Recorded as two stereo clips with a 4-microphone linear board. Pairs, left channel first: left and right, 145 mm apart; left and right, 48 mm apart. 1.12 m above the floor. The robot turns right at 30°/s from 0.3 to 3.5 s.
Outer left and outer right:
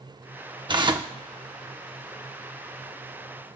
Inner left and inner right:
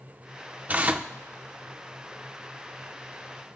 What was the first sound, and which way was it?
Tearing paper, 30° right (ahead or behind).